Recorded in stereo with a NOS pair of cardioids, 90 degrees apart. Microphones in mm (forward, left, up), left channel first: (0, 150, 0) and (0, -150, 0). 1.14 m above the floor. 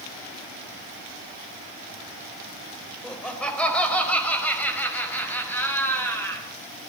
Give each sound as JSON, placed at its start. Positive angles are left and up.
{"t": 3.0, "sound": "laughter", "azimuth_deg": 5, "distance_m": 4.0}